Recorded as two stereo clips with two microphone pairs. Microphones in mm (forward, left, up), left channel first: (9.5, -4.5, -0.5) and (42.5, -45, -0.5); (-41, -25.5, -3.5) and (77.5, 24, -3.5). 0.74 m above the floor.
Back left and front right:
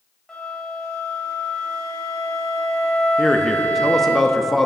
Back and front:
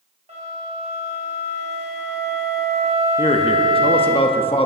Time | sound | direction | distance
0.3 | a flute | 50° left | 2 m
3.2 | a man speaking | 145° right | 0.7 m